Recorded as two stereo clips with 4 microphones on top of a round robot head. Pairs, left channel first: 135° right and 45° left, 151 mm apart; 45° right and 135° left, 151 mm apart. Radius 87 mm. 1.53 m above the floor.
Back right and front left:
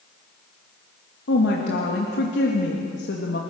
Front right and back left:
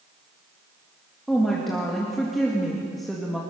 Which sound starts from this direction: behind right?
A woman speaking, at 1.3 s.